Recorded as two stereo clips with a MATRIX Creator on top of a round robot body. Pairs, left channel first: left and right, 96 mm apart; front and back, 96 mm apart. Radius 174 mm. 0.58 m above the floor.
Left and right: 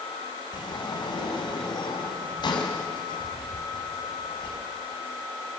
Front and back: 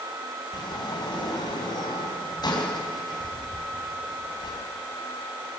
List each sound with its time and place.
0.5 s a sliding door: 45° left, 3.5 m